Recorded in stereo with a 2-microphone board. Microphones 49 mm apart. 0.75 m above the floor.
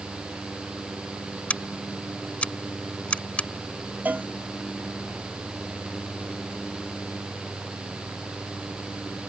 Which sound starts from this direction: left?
Scissors, at 1.5 s.